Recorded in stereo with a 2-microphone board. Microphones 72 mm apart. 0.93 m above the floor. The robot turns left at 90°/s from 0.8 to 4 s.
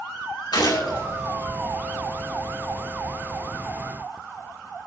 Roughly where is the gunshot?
Left.